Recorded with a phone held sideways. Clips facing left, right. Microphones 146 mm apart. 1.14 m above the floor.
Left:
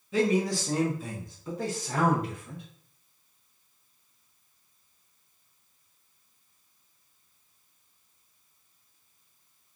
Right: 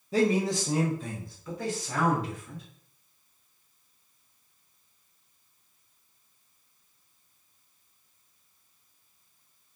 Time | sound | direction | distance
0.1 | a man speaking | 40° right (ahead or behind) | 0.7 m